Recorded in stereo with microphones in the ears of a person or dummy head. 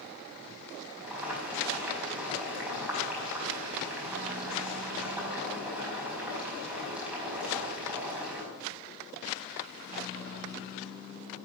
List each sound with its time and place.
1.0 s boiling: 5° right (ahead or behind), 5 m